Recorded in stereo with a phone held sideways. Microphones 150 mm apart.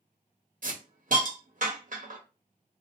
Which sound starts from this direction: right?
A hiss, at 0.6 s.